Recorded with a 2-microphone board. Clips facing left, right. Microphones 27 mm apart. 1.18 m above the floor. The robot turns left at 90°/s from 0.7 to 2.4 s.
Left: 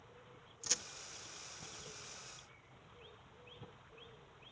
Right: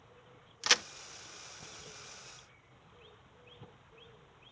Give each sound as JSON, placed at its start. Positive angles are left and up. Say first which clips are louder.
{"t": 0.6, "sound": "a crack", "louder": "right 13 dB", "side_deg": -75}